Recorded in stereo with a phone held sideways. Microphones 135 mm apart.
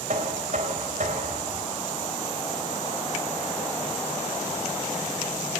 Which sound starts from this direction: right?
Knocking, at 0.1 s.